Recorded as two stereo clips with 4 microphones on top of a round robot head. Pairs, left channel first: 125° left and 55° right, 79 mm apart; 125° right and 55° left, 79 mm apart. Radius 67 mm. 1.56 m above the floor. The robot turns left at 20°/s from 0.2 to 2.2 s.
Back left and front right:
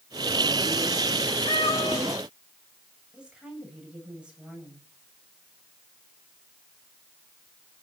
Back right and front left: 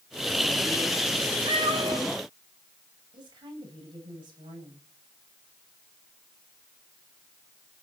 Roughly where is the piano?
No piano in this recording.